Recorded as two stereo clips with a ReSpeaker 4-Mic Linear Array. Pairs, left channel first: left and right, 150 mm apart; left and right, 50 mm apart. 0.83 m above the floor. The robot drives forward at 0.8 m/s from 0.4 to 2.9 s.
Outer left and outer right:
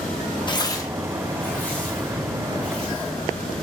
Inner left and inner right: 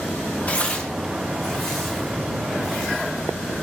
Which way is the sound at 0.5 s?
30° left (ahead or behind).